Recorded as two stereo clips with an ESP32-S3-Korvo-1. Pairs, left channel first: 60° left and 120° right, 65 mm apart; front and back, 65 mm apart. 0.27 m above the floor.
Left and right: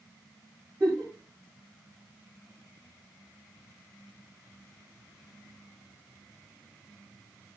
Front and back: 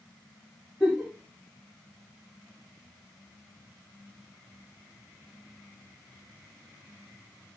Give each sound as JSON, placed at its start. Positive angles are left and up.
{"t": 0.8, "sound": "a giggle", "azimuth_deg": -90, "distance_m": 8.5}